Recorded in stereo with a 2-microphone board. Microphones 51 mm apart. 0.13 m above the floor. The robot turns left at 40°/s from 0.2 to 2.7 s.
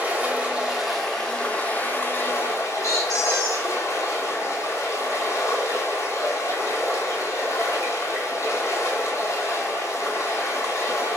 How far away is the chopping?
No chopping in this recording.